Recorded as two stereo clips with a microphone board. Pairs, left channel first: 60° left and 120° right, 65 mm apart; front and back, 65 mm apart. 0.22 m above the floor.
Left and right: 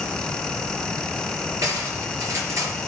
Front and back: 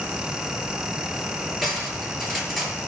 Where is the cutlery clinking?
85° right, 3 m.